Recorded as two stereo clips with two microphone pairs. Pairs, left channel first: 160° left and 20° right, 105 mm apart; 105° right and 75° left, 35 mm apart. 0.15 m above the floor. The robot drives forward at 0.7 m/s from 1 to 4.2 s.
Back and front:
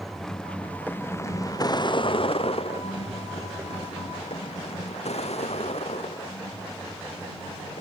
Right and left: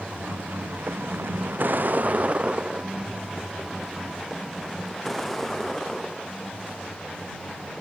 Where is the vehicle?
70° left; by 7.8 s 175° right.